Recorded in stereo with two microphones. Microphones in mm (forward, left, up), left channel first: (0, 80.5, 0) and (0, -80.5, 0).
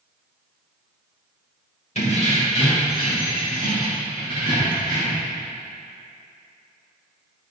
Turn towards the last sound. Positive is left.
turn(degrees=30)  # may be behind; listen again after turning